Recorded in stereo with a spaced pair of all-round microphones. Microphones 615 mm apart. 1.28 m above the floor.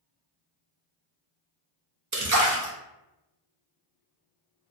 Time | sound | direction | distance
2.1 | a splash | 35° right (ahead or behind) | 0.5 m